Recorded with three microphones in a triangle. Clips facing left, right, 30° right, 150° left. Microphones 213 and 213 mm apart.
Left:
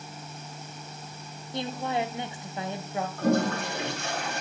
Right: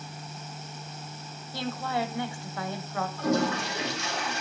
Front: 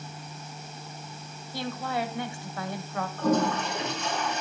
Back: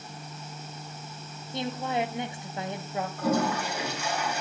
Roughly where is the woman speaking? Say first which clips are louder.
Left 1 dB, back 2 dB; behind left.